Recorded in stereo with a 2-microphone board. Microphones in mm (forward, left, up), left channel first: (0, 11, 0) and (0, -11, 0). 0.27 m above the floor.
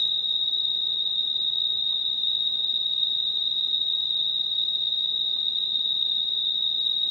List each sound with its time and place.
0.0 s an insect: 20° right (ahead or behind), 3 m